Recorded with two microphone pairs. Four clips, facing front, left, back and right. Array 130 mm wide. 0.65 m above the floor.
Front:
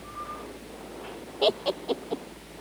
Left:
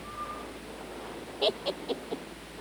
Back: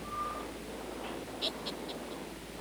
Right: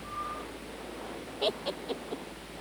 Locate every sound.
1.4 s laughter: 15° left